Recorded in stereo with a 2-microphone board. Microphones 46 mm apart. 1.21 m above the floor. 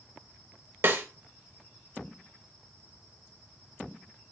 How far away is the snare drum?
About 1.2 m.